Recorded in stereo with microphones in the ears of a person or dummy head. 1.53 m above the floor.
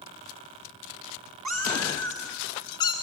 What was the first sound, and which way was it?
A cat meowing, 5° right (ahead or behind).